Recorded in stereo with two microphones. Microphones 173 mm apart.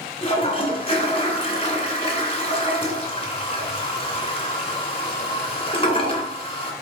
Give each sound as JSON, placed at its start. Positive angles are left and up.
{"t": 0.2, "sound": "a toilet flushing", "side_deg": 35, "distance_m": 2.5}